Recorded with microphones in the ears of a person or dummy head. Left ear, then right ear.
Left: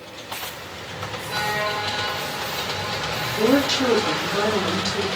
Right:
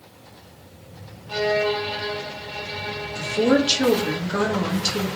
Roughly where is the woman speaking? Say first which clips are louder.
Even; right.